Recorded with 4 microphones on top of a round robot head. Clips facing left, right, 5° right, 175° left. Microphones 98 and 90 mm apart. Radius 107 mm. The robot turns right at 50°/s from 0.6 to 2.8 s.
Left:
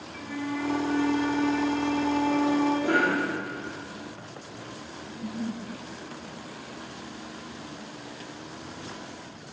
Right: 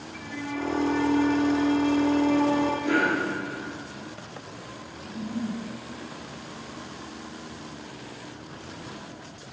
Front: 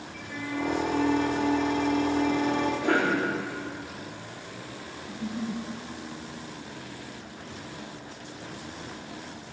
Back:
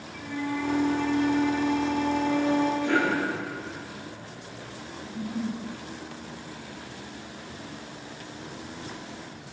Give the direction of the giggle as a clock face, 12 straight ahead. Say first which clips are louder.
Right 2 dB, back 1 dB; 5 o'clock.